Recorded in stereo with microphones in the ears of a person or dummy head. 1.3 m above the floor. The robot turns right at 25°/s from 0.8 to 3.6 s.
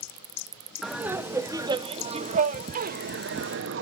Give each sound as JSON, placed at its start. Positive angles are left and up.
{"t": 0.8, "sound": "laughter", "azimuth_deg": -175, "distance_m": 0.7}